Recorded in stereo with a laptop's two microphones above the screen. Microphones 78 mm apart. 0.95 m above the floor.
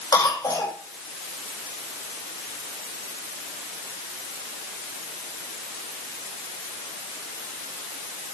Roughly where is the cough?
Left.